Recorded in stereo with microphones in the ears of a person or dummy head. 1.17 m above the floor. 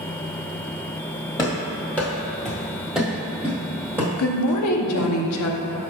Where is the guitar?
No guitar in this recording.